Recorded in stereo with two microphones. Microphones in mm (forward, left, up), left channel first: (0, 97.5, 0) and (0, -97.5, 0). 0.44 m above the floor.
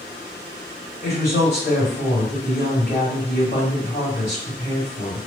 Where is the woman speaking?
60° left (ahead or behind), 2.0 m.